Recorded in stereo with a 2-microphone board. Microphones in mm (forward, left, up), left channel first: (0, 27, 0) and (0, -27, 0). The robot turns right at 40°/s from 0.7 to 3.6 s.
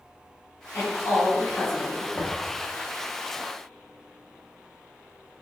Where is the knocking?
25° left (ahead or behind), 0.7 m; by 2.5 s 20° left (ahead or behind), 0.7 m.